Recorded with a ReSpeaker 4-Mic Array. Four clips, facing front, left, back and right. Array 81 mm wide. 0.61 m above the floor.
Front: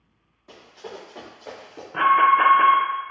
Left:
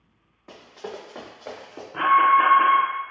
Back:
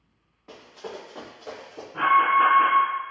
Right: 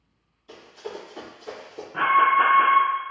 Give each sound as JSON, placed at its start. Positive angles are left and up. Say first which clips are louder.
{"t": 0.5, "sound": "running footsteps", "louder": "even, back 1 dB", "azimuth_deg": 115, "distance_m": 1.7}
{"t": 1.9, "sound": "an alarm", "louder": "left 2 dB, front 3 dB", "azimuth_deg": 0, "distance_m": 0.7}